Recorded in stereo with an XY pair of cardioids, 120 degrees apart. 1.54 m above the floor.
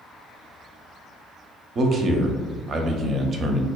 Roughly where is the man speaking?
Ahead right.